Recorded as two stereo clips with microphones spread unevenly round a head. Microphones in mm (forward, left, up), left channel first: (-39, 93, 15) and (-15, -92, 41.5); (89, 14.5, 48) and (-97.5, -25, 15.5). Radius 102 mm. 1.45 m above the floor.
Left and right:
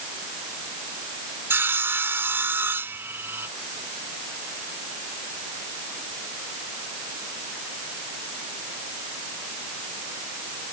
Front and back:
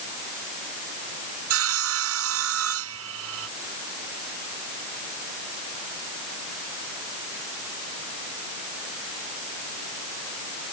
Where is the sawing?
160° right.